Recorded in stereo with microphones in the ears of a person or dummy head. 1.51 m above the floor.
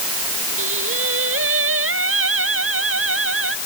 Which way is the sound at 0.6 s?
85° right.